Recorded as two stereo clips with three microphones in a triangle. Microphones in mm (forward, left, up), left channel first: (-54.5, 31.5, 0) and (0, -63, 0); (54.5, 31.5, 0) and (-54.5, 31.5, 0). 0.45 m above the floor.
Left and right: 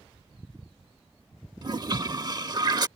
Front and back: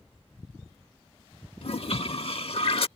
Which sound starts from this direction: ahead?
A toilet flushing, at 1.6 s.